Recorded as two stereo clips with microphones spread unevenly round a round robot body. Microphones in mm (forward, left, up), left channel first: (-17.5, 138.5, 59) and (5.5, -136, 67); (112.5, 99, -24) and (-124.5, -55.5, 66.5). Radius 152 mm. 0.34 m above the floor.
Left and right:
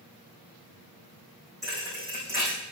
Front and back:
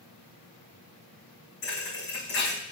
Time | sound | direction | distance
1.6 | a thud | 5° left | 5 m